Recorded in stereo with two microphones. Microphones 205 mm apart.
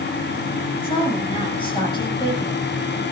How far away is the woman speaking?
About 9 m.